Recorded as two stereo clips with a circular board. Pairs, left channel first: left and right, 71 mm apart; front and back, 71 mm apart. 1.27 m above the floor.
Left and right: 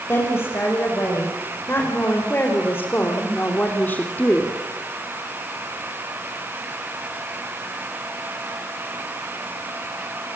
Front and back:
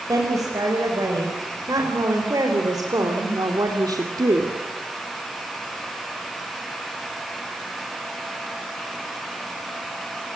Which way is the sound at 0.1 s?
145° left.